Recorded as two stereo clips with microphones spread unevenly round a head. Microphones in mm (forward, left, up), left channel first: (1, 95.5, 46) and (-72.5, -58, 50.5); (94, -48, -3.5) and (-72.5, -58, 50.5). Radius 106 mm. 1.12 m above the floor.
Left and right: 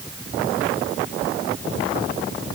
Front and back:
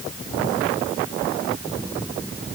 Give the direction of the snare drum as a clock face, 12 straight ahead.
No snare drum in this recording.